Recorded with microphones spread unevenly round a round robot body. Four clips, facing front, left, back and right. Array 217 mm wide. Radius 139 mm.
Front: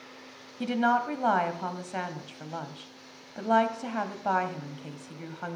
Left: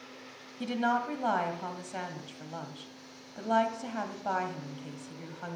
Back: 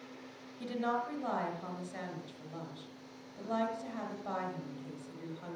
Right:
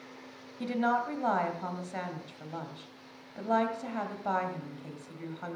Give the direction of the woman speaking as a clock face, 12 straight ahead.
12 o'clock.